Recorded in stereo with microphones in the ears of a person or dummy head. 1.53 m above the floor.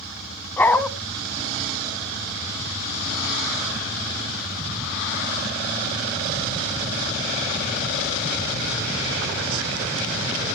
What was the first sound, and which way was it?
A dog barking, 5° left (ahead or behind).